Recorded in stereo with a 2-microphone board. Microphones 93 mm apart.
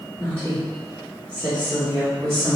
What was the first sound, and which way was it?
A woman speaking, 25° left (ahead or behind).